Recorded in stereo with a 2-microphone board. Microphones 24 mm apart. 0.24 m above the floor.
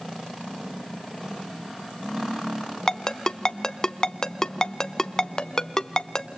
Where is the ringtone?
25° left (ahead or behind), 0.7 m.